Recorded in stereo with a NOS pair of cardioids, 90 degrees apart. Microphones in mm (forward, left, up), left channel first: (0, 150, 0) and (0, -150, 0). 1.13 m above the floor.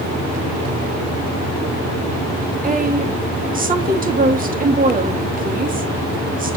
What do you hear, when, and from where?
2.6 s a woman speaking: 30° right, 1.9 m